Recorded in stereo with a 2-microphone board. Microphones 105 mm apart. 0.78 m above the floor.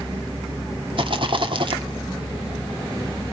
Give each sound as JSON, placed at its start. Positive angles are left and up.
{"t": 1.0, "sound": "a rattle", "side_deg": -55, "distance_m": 1.9}